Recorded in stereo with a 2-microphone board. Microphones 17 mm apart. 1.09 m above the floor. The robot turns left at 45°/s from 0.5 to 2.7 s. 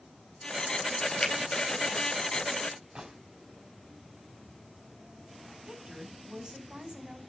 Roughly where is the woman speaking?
Right.